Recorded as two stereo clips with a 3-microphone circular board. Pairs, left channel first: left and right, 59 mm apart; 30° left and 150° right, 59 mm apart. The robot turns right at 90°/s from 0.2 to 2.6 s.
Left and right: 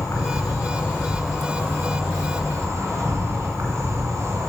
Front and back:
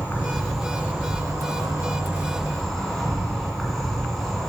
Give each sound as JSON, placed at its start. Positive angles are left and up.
{"t": 0.0, "sound": "an insect", "azimuth_deg": 90, "distance_m": 2.0}